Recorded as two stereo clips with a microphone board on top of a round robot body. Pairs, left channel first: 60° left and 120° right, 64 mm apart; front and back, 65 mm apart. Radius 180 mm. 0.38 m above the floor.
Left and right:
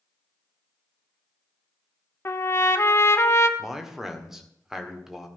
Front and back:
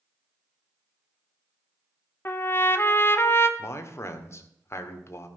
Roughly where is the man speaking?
Ahead right.